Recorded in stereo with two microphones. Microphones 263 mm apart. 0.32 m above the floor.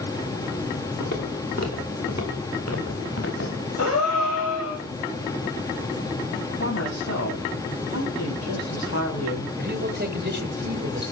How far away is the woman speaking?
About 10 m.